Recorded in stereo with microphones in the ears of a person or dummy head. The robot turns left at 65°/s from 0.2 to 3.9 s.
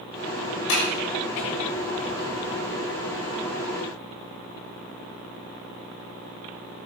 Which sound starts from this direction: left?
A sliding door, at 0.7 s.